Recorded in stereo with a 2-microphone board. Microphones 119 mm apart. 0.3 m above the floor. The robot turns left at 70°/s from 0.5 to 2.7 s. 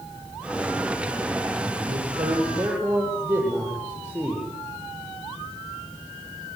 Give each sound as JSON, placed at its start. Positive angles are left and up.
{"t": 1.9, "sound": "a man speaking", "azimuth_deg": -105, "distance_m": 9.0}